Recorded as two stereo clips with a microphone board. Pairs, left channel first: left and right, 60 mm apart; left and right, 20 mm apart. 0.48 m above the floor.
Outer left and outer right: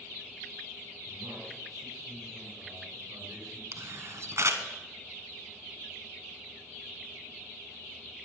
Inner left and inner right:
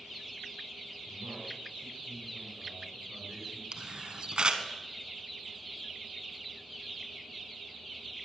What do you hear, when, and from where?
1.1 s a man speaking: 75° right (ahead or behind), 6 m
3.7 s a camera shutter: 55° right (ahead or behind), 1.3 m